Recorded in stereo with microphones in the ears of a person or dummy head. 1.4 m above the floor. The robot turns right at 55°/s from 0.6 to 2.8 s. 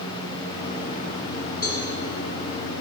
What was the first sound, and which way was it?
A cowbell, 30° right (ahead or behind).